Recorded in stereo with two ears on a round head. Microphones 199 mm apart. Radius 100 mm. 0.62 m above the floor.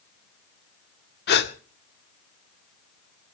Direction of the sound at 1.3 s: 55° left (ahead or behind).